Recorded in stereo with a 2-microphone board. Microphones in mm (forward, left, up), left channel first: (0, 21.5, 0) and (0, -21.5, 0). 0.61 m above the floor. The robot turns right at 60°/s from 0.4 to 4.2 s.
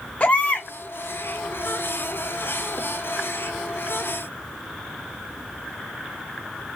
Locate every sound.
0.2 s a baby crying: 35° left (ahead or behind), 0.7 m; by 0.7 s 50° left (ahead or behind), 0.7 m